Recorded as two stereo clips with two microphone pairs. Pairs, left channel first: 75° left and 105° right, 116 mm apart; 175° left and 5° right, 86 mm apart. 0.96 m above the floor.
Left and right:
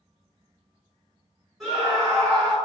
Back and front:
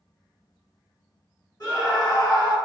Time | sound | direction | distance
1.6 | a scream | 165° left | 1.4 m